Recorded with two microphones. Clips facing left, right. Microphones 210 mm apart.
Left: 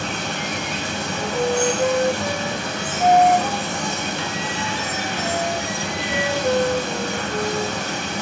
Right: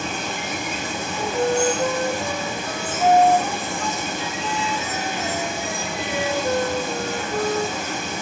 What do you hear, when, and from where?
0.0 s running water: 75° left (ahead or behind), 3.5 m
1.1 s a flute: 15° left (ahead or behind), 6.5 m